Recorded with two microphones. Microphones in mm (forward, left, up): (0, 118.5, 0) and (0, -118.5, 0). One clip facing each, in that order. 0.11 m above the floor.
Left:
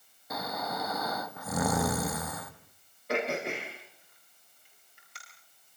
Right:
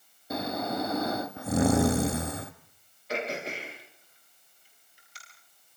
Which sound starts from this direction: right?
Snoring, at 0.3 s.